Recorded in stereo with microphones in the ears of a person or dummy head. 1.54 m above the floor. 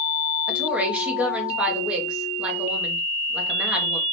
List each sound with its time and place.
0.5 s a woman speaking: 5° right (ahead or behind), 1.3 m